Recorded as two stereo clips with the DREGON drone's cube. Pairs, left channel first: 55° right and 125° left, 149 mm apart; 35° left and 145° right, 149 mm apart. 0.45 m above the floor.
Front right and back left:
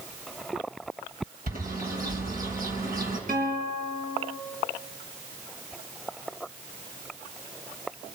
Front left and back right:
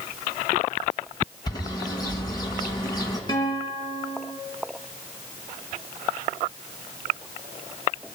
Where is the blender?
No blender in this recording.